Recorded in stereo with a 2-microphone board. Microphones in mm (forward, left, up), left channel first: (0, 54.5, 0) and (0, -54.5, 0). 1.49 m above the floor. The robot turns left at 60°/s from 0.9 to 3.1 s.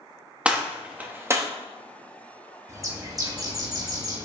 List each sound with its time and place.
0.5 s a gunshot: 10° right (ahead or behind), 0.9 m; by 1.5 s 30° right (ahead or behind), 0.9 m
2.7 s a bird: 30° right (ahead or behind), 1.0 m; by 4.3 s 35° right (ahead or behind), 1.0 m